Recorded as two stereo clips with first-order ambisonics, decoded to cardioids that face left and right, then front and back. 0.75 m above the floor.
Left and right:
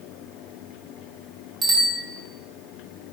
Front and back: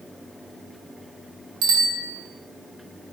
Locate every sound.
1.6 s a bicycle bell: 165° right, 4.5 m